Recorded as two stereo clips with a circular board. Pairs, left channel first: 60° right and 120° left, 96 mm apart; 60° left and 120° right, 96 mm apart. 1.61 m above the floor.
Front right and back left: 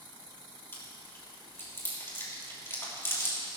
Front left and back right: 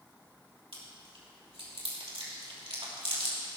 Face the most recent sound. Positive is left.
turn(degrees=-125)